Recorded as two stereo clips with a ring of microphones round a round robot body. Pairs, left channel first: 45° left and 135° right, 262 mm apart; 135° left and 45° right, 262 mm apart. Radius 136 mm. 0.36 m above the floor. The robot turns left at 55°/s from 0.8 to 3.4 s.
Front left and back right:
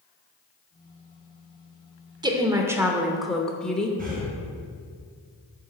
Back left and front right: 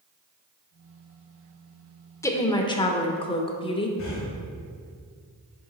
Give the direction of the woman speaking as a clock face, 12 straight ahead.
6 o'clock.